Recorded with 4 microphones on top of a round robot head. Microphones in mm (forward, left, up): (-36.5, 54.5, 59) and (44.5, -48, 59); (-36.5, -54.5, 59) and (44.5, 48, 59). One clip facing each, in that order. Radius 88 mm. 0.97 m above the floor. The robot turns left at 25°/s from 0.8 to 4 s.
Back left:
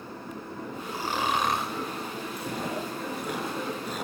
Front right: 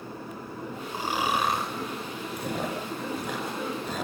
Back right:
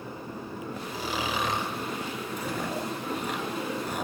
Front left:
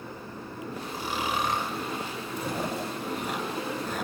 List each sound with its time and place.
0.9 s snoring: 125° right, 6 m; by 1.7 s 145° right, 6 m
2.4 s chewing: 15° right, 10 m; by 4.1 s 55° right, 10 m